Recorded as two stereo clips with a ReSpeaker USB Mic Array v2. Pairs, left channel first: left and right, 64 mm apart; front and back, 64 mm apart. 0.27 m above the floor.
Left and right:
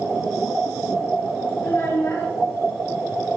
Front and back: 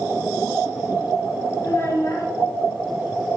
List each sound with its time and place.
1.6 s a child speaking: 35° left, 2 m